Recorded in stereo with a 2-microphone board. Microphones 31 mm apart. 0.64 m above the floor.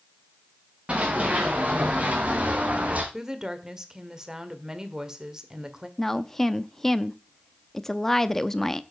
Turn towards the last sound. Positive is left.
turn(degrees=10)  # may be behind; listen again after turning